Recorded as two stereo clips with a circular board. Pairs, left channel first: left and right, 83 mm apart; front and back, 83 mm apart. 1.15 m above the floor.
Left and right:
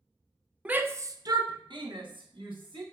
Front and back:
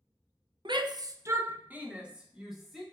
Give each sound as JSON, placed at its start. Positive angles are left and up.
{"t": 0.7, "sound": "a shout", "azimuth_deg": -165, "distance_m": 0.6}